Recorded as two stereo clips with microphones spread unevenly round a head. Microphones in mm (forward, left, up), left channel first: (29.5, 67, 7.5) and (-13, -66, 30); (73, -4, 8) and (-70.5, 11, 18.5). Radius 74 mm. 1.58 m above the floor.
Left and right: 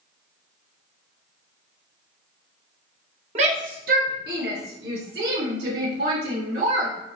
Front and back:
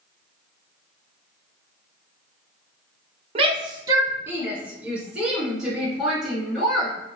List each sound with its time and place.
3.4 s a shout: 140° right, 0.7 m; by 7.0 s 95° right, 3 m